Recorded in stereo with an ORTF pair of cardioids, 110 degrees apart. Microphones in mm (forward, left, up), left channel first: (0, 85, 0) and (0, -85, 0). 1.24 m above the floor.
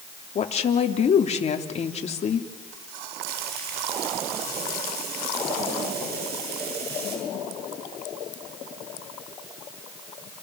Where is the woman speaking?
40° left, 3 m.